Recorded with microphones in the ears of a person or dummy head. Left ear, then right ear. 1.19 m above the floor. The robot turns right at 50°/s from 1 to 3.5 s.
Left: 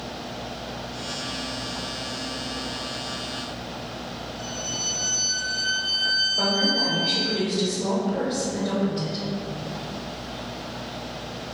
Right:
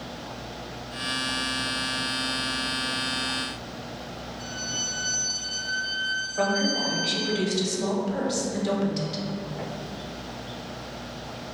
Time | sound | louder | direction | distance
4.4 | a violin | left 1 dB | 30° left (ahead or behind) | 0.8 m
6.4 | a woman speaking | left 3 dB | 45° right (ahead or behind) | 1.0 m